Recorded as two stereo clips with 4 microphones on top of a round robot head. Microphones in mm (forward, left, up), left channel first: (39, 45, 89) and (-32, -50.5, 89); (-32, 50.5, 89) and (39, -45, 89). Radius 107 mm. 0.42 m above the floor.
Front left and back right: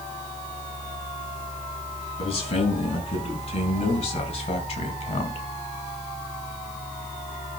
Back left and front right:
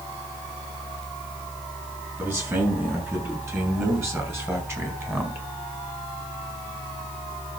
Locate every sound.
2.2 s a man speaking: 15° left, 7 m